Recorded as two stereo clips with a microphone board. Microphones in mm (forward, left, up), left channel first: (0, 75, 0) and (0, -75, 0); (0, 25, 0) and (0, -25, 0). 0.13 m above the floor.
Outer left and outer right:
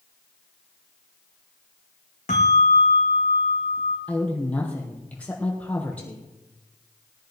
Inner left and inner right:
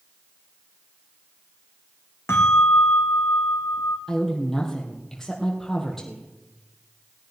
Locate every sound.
2.3 s a bell: 60° left (ahead or behind), 2 m
4.1 s a woman speaking: 10° left (ahead or behind), 3.5 m